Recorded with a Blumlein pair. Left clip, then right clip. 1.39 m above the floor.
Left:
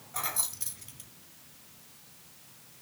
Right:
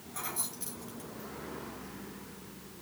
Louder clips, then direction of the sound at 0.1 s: Left 4 dB; 70° left.